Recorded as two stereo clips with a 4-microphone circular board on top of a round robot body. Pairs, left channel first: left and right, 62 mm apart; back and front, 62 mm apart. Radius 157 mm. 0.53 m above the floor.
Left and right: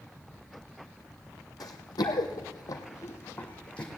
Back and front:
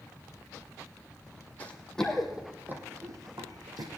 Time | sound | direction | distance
1.6 | running footsteps | 110° left | 1.5 m